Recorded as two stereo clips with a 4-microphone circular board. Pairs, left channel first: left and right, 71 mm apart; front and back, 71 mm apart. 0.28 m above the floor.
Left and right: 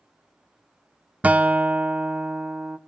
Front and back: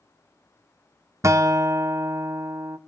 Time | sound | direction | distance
1.2 | a guitar | 155° right | 0.6 m